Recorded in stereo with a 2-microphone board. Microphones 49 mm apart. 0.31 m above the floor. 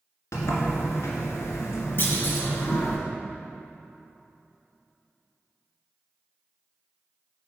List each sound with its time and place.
0.3 s a sliding door: 80° left, 1.7 m
2.0 s a clunk: 50° left (ahead or behind), 1.8 m